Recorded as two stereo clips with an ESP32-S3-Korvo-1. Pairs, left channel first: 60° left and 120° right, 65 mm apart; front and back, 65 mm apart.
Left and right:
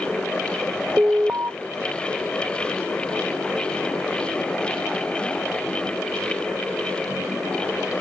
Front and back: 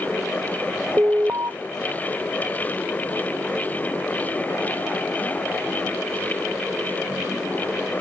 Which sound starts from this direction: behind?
An alarm, at 1.0 s.